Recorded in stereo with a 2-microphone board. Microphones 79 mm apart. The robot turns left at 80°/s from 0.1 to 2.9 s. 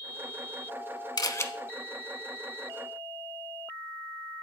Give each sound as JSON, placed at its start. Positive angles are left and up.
{"t": 1.2, "sound": "a camera shutter", "side_deg": 55, "distance_m": 0.6}